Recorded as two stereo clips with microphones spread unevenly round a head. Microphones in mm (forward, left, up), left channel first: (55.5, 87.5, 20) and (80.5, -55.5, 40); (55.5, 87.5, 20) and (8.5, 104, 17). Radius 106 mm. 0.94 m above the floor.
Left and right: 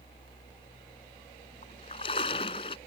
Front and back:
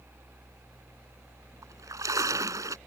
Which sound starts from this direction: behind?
A splash, at 1.6 s.